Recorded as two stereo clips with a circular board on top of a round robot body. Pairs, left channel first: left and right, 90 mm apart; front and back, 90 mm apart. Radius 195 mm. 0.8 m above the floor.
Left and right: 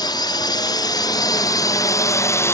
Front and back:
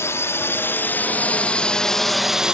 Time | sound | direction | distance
0.0 | a drone | 55° left | ?